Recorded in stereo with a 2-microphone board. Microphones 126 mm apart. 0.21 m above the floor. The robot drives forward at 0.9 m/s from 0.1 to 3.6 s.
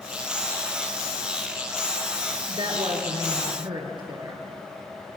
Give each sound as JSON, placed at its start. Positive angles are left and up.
{"t": 2.5, "sound": "a woman speaking", "side_deg": -50, "distance_m": 3.0}